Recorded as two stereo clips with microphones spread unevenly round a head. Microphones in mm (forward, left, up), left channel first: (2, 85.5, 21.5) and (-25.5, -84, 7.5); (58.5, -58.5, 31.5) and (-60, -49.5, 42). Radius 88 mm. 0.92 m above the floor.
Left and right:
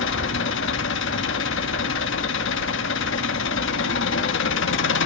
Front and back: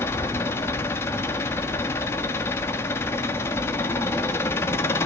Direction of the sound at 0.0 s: 65° left.